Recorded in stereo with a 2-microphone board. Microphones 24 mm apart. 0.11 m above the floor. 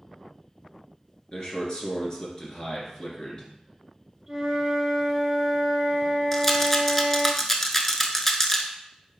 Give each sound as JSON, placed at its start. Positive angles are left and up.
{"t": 1.3, "sound": "a man speaking", "side_deg": 35, "distance_m": 1.4}
{"t": 4.3, "sound": "a flute", "side_deg": -20, "distance_m": 1.7}
{"t": 6.3, "sound": "a rattle", "side_deg": 15, "distance_m": 0.6}